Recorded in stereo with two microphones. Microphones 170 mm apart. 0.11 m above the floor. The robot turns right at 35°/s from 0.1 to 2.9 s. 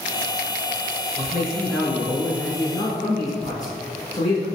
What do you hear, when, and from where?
1.2 s a man speaking: 15° right, 1.3 m; by 4.5 s 45° left, 1.3 m